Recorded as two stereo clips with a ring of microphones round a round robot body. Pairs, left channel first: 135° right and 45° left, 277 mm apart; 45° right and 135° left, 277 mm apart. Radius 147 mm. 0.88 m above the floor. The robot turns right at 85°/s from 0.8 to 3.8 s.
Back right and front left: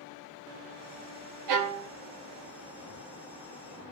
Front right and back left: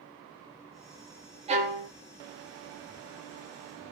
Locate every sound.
1.5 s a violin: 65° left, 0.7 m; by 1.9 s 100° left, 0.7 m